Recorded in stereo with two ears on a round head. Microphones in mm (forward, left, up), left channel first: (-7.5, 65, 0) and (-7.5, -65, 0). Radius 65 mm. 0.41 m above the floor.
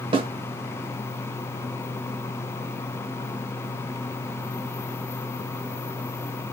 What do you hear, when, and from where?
0.1 s a snare drum: 35° right (ahead or behind), 0.9 m